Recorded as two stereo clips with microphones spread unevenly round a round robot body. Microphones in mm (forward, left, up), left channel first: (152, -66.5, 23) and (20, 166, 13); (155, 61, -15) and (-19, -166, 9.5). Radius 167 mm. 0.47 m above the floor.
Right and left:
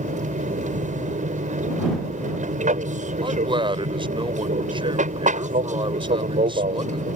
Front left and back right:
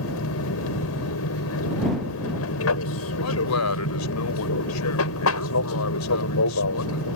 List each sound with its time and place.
0.0 s an aircraft: 65° left
3.2 s a man speaking: 50° left